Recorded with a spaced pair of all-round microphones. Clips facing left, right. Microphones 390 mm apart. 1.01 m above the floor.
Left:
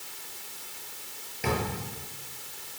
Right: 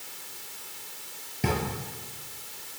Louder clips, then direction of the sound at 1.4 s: Right 1 dB; 50° right (ahead or behind).